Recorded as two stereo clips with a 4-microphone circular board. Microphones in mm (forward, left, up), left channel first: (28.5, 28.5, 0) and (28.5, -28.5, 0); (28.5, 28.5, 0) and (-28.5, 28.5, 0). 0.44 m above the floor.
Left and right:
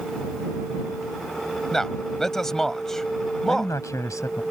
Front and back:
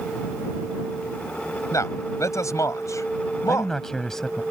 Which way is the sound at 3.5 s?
80° left.